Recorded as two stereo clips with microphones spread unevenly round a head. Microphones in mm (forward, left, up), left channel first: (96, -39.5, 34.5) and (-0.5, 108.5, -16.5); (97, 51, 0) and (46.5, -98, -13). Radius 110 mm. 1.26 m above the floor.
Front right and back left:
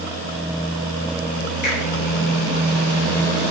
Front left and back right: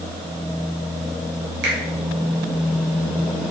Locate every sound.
1.6 s a finger snap: 110° right, 3.5 m